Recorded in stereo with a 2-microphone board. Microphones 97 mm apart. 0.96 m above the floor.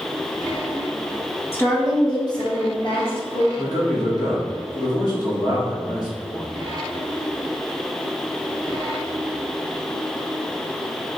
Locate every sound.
1.5 s a woman speaking: 25° left (ahead or behind), 1.1 m; by 3.5 s 65° left (ahead or behind), 1.4 m
3.5 s a man speaking: 40° left (ahead or behind), 1.3 m